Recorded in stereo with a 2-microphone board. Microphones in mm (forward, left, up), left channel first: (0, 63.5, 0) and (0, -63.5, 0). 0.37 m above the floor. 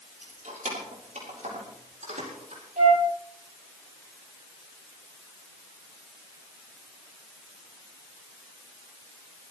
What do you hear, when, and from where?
0.2 s keys jangling: 80° right, 5.5 m; by 2.6 s 75° right (ahead or behind), 7.5 m
2.8 s a flute: 85° right, 6.5 m